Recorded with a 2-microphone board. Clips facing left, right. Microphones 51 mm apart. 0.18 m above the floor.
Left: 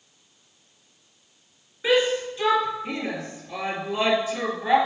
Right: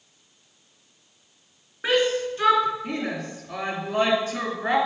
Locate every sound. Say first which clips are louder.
1.8 s a shout: left 1 dB; 55° right (ahead or behind), 2.5 m